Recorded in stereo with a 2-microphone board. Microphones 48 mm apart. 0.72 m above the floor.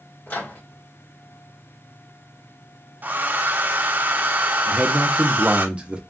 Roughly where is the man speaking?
Right.